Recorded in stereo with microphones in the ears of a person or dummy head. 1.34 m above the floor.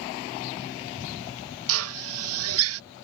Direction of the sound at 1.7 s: 85° right.